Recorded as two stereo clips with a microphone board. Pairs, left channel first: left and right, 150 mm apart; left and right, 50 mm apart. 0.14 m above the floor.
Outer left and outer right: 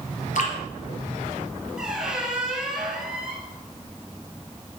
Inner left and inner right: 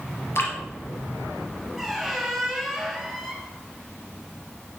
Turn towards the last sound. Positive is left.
turn(degrees=-5)  # may be behind; listen again after turning